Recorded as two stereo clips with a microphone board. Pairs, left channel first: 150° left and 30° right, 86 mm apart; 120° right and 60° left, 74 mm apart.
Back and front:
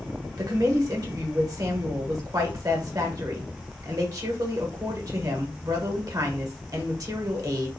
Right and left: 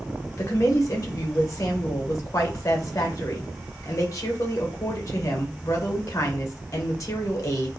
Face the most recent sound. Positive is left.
turn(degrees=-75)